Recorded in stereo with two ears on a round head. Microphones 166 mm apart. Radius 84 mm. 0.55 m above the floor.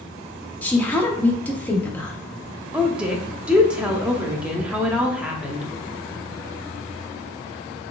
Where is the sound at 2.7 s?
5° right (ahead or behind), 0.7 m.